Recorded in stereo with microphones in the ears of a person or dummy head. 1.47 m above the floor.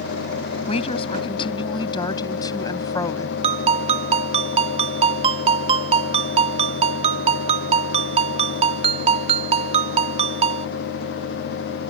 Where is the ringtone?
40° right (ahead or behind).